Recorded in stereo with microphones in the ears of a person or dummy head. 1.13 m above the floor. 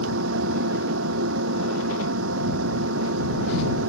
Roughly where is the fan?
Right.